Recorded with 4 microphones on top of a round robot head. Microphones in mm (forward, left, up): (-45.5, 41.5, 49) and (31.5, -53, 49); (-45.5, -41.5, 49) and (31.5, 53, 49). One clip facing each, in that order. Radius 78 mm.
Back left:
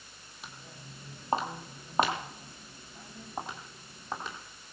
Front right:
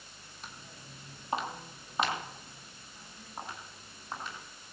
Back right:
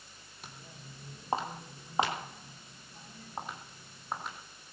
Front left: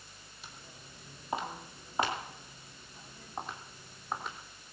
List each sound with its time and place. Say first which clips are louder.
0.4 s footsteps: back left 2 dB, back right 3 dB; 155° right, 1.9 m; by 4.3 s 140° left, 3.5 m